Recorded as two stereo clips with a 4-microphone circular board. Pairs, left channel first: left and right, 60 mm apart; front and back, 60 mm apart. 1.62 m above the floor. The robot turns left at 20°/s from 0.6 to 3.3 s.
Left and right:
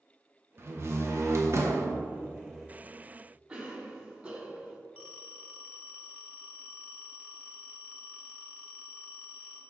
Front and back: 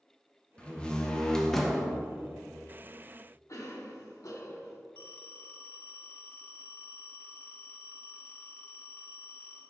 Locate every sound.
0.6 s a door slam: 65° right, 0.8 m; by 1.9 s 90° right, 0.8 m
3.5 s a cough: 30° right, 1.4 m
5.0 s a phone ringing: 35° right, 1.3 m